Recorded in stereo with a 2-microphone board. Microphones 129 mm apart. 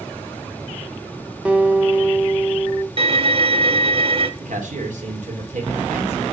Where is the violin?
45° right (ahead or behind), 0.9 m.